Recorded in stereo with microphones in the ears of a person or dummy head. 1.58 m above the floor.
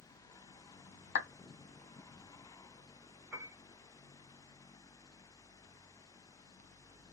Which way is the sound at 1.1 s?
55° left (ahead or behind).